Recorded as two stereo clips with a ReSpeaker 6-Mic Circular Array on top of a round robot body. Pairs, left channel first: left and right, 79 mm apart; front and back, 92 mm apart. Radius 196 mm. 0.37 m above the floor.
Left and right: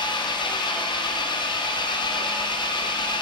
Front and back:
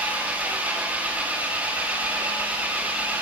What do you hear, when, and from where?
0.0 s an engine running: 105° left, 0.8 m